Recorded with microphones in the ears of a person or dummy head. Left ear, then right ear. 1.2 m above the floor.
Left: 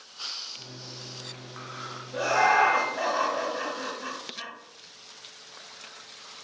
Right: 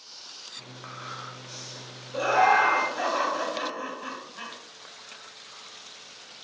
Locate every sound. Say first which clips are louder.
0.6 s a microwave: right 1 dB; 10° left (ahead or behind), 0.9 m
2.1 s laughter: right 1 dB; 15° left (ahead or behind), 1.0 m